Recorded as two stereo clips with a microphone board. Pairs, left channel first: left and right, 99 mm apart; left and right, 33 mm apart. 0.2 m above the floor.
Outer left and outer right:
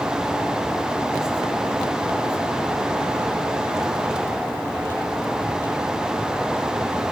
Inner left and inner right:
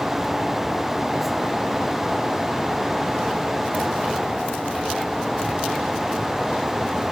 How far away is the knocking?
I don't hear knocking.